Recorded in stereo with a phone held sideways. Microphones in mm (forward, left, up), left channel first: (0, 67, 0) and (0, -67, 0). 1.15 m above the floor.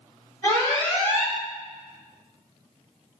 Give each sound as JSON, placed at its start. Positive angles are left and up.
{"t": 0.4, "sound": "an alarm", "side_deg": 25, "distance_m": 3.0}